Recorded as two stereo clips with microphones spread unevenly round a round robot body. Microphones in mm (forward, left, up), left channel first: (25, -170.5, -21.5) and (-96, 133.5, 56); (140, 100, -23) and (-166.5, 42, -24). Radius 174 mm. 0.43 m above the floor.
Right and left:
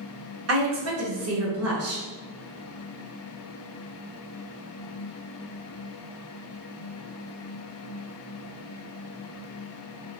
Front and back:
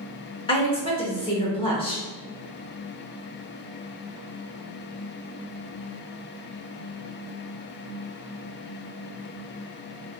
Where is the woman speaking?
75° left, 1.0 m.